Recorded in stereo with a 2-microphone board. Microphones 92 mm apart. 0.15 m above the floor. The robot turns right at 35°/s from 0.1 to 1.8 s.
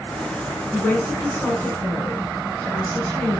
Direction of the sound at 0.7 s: 25° left (ahead or behind).